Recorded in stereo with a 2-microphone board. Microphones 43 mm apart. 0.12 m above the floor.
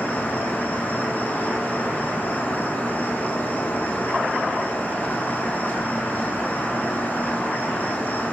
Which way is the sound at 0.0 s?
40° left (ahead or behind).